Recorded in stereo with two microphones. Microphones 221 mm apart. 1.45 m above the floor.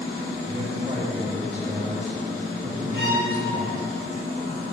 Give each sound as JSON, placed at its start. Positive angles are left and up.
{"t": 0.5, "sound": "a man speaking", "side_deg": -35, "distance_m": 3.5}
{"t": 2.9, "sound": "a violin", "side_deg": 75, "distance_m": 3.0}